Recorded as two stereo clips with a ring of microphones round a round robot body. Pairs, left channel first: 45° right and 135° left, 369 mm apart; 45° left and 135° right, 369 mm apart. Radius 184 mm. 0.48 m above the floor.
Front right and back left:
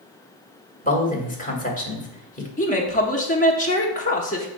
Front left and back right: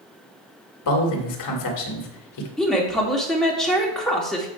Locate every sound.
0.8 s a man speaking: 20° left, 1.9 m
2.6 s a woman speaking: 40° right, 1.0 m